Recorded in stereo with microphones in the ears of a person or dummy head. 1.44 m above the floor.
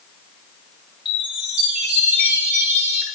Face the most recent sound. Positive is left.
turn(degrees=-5)  # may be behind; listen again after turning